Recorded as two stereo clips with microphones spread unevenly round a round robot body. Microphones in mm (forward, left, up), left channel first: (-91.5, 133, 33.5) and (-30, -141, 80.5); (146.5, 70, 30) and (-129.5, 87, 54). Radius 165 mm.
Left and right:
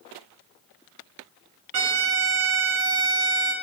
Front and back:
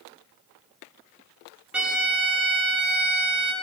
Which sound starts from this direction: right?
A violin, at 1.7 s.